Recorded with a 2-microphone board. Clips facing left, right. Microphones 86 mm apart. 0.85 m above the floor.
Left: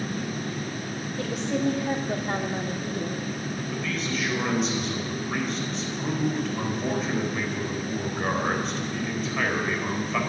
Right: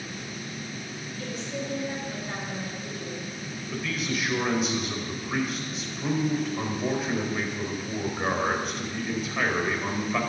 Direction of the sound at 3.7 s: 5° right (ahead or behind).